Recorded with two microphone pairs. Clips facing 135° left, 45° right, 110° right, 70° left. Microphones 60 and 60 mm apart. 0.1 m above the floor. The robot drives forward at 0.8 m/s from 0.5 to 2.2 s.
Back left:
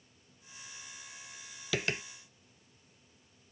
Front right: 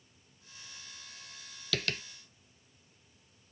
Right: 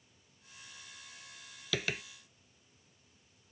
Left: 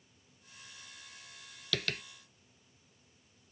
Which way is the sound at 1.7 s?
Straight behind.